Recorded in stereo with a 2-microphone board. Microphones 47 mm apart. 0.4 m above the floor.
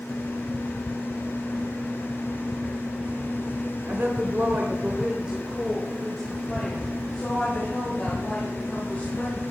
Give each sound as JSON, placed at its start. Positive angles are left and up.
{"t": 3.9, "sound": "a woman speaking", "side_deg": -50, "distance_m": 1.6}